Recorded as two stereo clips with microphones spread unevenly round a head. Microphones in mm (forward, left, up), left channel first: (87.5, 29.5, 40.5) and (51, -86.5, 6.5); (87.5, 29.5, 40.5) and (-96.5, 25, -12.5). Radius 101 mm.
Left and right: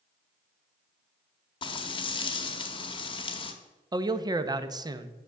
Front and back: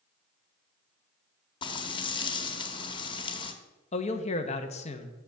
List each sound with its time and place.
1.6 s frying: 50° left, 0.9 m
3.9 s a man speaking: 60° right, 0.9 m